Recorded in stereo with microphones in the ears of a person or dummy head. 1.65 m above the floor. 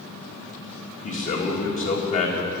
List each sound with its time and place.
1.0 s a man speaking: 35° left (ahead or behind), 2 m